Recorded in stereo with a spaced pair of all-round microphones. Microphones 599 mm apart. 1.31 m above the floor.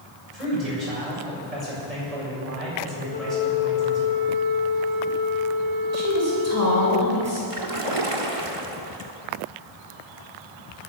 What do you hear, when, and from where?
0.3 s a man speaking: 85° right, 7 m
3.1 s a flute: 35° left (ahead or behind), 4.5 m
5.9 s a woman speaking: 25° right (ahead or behind), 6 m
7.5 s a splash: 60° right (ahead or behind), 1.5 m